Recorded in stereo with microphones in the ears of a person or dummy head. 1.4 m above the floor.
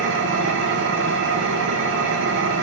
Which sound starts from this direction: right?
An engine running, at 0.0 s.